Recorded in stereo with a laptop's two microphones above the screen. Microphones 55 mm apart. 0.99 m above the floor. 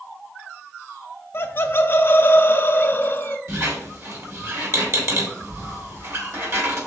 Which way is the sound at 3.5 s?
55° right (ahead or behind).